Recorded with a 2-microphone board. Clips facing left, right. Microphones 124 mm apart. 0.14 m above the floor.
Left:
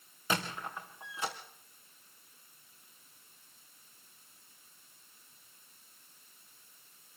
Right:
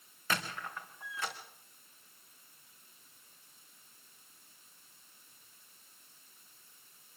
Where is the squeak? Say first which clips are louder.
Left 2 dB; 20° left (ahead or behind), 3.5 m.